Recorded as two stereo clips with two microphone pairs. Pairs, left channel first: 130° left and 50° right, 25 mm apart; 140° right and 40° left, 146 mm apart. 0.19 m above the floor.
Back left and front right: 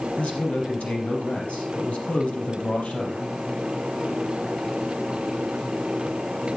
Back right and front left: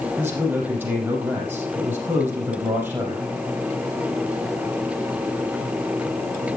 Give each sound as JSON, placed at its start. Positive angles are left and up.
{"t": 0.2, "sound": "a man speaking", "azimuth_deg": 115, "distance_m": 5.5}